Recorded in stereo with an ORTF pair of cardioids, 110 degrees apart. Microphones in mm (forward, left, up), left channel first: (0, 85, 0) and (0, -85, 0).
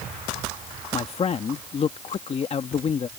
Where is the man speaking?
35° left.